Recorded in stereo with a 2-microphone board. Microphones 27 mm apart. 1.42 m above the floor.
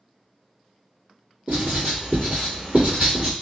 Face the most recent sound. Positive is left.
turn(degrees=-70)  # may be behind; listen again after turning